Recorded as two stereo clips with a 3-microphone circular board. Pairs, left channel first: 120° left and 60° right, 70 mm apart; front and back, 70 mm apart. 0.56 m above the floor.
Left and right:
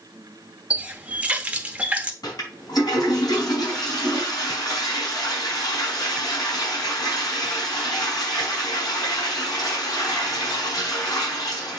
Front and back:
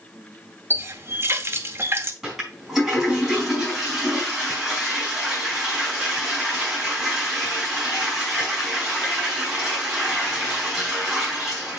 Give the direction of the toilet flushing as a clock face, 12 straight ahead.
9 o'clock.